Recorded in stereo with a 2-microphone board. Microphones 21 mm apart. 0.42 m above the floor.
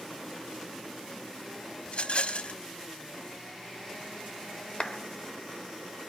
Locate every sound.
1.9 s a rattle: 55° left (ahead or behind), 0.6 m
4.8 s a clap: 40° left (ahead or behind), 1.1 m